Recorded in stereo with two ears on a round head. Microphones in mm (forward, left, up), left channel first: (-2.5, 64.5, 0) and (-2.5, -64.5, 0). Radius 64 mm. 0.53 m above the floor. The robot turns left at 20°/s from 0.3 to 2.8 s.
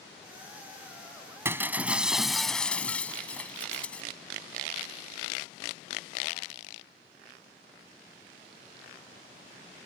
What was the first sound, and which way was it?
Breaking glass, 20° right (ahead or behind).